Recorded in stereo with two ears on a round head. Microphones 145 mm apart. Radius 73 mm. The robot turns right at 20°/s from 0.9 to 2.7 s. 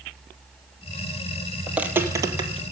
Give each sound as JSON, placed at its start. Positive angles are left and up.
{"t": 1.7, "sound": "footsteps", "side_deg": -5, "distance_m": 1.2}